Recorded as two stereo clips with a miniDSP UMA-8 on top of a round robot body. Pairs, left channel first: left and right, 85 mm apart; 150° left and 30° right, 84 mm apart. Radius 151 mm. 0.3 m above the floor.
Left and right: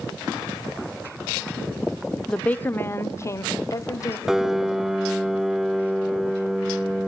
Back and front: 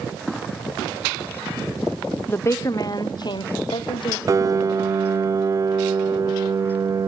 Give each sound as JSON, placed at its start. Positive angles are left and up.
{"t": 2.3, "sound": "a woman speaking", "azimuth_deg": 155, "distance_m": 0.9}
{"t": 4.3, "sound": "a piano", "azimuth_deg": -10, "distance_m": 0.9}